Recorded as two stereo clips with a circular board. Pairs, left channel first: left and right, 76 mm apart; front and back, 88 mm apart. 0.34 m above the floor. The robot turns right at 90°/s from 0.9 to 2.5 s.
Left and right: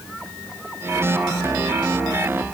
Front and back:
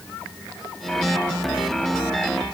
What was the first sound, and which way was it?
Only background noise.